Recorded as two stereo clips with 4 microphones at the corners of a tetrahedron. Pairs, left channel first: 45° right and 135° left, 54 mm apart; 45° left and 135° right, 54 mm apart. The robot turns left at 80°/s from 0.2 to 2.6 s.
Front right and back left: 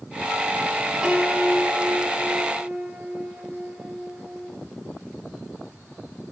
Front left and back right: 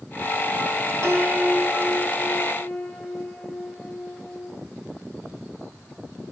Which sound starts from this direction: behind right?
A piano, at 1.0 s.